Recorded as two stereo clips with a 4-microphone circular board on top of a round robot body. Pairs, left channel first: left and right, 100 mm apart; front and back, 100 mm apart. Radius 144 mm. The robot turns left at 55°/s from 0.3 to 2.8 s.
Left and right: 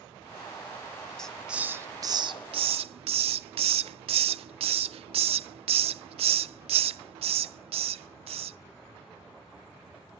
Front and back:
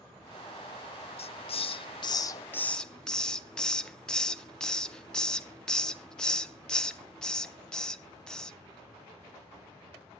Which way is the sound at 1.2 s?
5° left.